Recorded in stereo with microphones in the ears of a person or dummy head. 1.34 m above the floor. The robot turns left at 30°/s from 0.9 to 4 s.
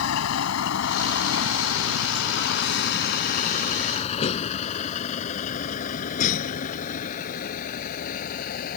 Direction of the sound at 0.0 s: 80° left.